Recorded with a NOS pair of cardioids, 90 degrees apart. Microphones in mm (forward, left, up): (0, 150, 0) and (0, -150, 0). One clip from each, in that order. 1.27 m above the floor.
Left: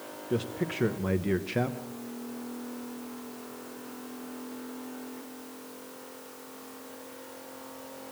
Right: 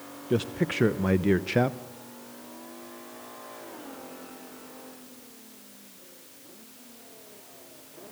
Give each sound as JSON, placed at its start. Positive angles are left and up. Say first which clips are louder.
{"t": 0.3, "sound": "a man speaking", "louder": "right 4 dB", "azimuth_deg": -25, "distance_m": 0.8}